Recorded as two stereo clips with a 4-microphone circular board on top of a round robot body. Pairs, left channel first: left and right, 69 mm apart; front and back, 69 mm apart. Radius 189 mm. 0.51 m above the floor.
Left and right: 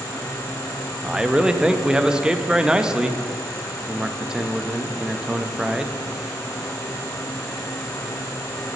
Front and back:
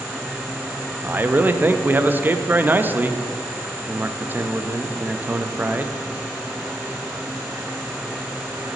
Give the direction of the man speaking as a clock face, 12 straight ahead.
5 o'clock.